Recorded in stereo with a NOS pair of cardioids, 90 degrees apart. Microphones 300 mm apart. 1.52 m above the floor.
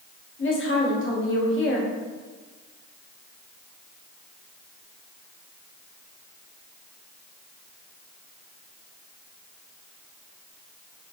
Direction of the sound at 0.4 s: 40° left.